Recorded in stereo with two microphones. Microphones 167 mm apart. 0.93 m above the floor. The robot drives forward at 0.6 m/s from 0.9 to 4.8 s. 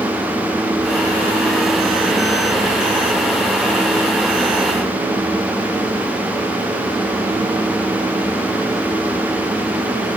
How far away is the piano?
No piano in this recording.